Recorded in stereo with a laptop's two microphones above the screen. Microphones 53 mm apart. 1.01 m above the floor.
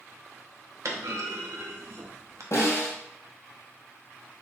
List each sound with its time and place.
0.8 s a clunk: 70° right (ahead or behind), 0.6 m
2.5 s a snare drum: 70° left (ahead or behind), 1.9 m